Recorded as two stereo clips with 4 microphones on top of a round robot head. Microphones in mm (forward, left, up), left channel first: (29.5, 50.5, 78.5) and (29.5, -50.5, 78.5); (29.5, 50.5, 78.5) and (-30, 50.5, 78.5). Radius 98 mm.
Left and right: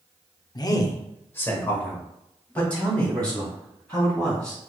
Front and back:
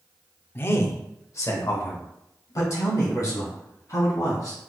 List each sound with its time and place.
0.6 s a man speaking: 50° left, 0.6 m; by 4.6 s 10° left, 3.5 m